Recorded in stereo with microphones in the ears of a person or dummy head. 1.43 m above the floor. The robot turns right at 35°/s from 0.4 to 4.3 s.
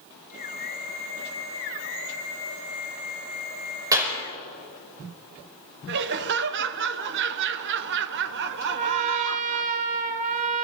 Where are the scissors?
No scissors in this recording.